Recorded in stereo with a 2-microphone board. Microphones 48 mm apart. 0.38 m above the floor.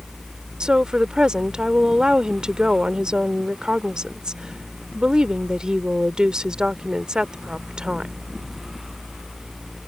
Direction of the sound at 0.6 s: 20° right (ahead or behind).